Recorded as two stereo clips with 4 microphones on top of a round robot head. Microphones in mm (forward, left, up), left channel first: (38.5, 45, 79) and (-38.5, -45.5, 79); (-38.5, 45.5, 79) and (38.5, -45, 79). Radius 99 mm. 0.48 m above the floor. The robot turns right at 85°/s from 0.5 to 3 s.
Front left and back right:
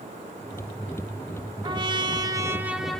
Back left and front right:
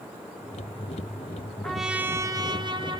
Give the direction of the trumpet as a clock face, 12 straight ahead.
5 o'clock.